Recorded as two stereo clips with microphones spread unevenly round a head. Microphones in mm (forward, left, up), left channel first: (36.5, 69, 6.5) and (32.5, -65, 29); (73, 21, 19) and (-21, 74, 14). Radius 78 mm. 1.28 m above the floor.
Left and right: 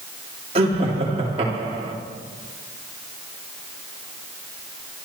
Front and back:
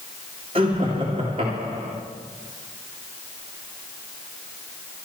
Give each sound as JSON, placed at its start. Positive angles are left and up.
{"t": 0.6, "sound": "laughter", "azimuth_deg": -150, "distance_m": 3.0}